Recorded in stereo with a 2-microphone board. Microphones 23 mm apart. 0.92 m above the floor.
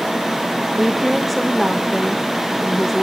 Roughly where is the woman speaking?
Centre.